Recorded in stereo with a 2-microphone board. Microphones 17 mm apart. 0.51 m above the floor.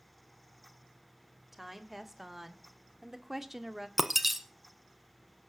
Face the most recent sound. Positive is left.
turn(degrees=-15)  # may be behind; listen again after turning